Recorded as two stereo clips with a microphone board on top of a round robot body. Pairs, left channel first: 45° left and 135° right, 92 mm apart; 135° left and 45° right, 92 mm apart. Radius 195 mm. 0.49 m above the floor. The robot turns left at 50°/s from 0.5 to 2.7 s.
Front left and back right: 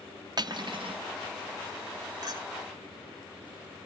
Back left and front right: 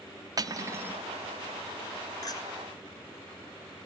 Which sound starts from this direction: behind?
A clink, at 2.2 s.